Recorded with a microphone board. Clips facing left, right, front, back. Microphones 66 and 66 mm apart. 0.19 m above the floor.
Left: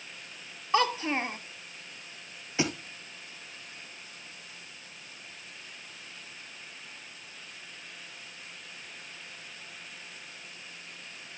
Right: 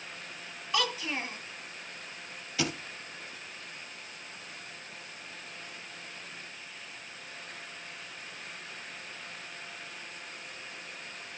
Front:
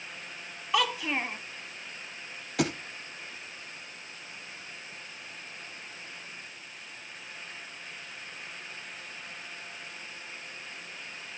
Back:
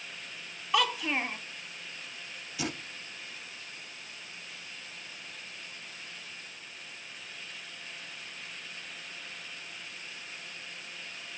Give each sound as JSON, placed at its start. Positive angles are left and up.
{"t": 0.7, "sound": "a child speaking", "azimuth_deg": 90, "distance_m": 0.8}
{"t": 2.6, "sound": "a thud", "azimuth_deg": 25, "distance_m": 2.0}